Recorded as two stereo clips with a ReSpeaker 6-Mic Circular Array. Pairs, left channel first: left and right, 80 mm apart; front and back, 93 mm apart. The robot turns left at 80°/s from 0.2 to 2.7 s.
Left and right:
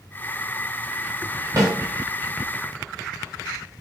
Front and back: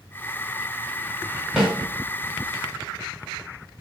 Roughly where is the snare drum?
Right.